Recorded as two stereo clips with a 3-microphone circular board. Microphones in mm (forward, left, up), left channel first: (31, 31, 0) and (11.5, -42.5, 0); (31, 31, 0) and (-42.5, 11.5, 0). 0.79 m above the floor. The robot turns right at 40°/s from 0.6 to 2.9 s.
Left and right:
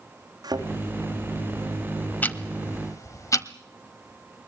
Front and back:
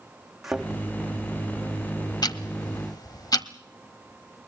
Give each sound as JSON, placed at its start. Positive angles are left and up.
{"t": 0.4, "sound": "a thud", "azimuth_deg": -80, "distance_m": 4.0}
{"t": 2.2, "sound": "ticking", "azimuth_deg": 10, "distance_m": 1.1}